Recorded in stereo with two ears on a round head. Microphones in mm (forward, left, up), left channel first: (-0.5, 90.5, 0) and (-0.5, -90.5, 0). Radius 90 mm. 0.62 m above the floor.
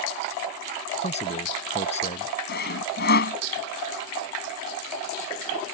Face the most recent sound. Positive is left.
turn(degrees=50)  # may be behind; listen again after turning